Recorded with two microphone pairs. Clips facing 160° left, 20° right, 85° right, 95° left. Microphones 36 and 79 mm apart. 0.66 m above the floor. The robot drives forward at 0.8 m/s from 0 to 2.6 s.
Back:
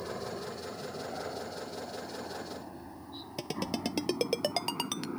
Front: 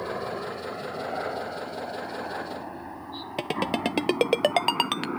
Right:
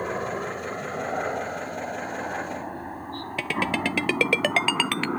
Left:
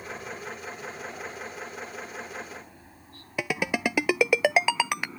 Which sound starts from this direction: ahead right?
A helicopter, at 0.0 s.